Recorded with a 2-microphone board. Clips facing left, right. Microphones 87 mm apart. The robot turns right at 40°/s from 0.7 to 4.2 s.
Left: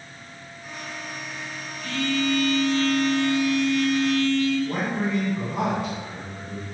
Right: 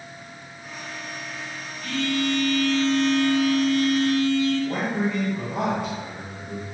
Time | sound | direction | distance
1.8 | a phone buzzing | straight behind | 1.8 m
4.6 | a man speaking | 55° right (ahead or behind) | 1.3 m